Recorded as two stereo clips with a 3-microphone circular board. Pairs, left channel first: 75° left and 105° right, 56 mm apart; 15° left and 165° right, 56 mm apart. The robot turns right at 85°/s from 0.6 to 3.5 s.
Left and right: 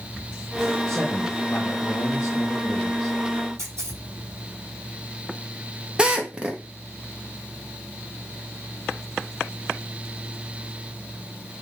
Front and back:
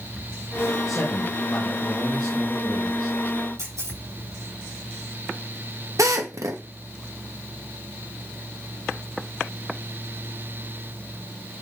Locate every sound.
0.9 s a man speaking: 20° right, 2.5 m; by 3.2 s 175° left, 2.5 m
3.6 s a camera shutter: 140° right, 6 m
6.0 s a drill: 175° right, 1.3 m